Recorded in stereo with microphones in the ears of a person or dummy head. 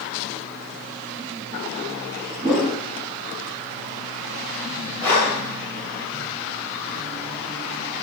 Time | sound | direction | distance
2.4 | a whoosh | 5° right (ahead or behind) | 2 m
5.0 | breathing | 10° left (ahead or behind) | 2 m